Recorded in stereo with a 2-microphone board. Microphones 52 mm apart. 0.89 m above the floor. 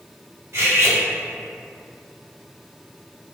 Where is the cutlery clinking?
75° right (ahead or behind), 1.0 m.